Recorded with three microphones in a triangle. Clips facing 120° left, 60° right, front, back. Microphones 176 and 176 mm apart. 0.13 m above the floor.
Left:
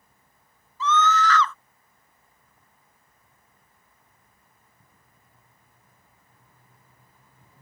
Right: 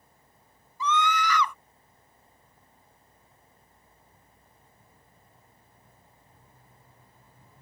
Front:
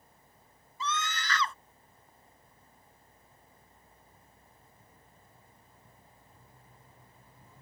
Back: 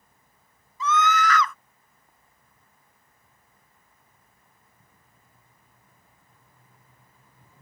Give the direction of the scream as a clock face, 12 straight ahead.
12 o'clock.